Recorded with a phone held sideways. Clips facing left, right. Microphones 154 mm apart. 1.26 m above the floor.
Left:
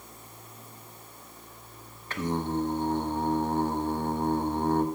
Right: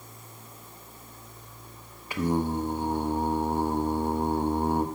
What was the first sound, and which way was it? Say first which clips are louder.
Singing: right 3 dB; 10° right (ahead or behind).